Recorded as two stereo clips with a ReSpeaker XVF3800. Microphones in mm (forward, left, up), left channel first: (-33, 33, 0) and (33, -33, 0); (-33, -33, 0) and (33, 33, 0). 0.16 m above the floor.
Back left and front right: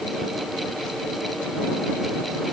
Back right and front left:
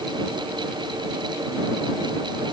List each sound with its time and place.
Only background noise.